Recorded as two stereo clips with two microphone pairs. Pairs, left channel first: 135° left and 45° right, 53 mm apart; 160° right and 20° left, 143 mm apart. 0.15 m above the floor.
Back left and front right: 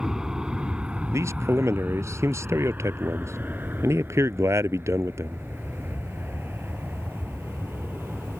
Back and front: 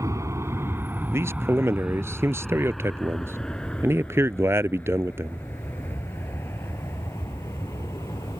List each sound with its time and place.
0.0 s an aircraft: 15° left; by 8.4 s 90° right
1.1 s a man speaking: 50° right